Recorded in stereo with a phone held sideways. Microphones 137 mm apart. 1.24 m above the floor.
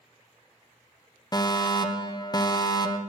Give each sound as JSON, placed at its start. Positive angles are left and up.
{"t": 1.3, "sound": "a fire alarm", "side_deg": 30, "distance_m": 1.2}